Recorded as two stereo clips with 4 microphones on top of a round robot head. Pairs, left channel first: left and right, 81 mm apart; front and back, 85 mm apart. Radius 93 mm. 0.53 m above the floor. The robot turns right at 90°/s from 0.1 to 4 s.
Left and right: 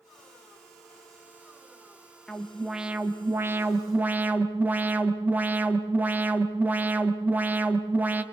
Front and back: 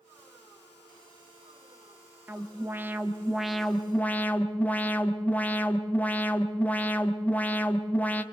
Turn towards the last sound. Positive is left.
turn(degrees=-50)